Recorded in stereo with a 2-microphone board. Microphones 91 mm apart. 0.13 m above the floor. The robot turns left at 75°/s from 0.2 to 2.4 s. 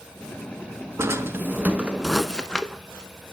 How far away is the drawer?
About 0.5 m.